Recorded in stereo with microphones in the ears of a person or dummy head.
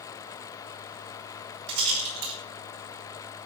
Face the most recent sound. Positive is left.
turn(degrees=-75)  # may be behind; listen again after turning